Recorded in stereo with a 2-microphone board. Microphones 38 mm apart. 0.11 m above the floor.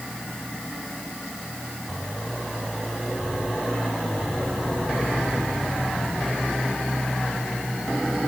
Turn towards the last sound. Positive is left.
No sound to turn to.